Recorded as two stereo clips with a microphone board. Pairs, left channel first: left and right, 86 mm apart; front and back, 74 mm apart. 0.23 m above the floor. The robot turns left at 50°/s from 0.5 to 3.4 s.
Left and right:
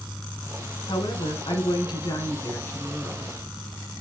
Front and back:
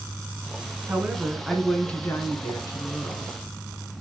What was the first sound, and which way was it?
A woman speaking, 115° left.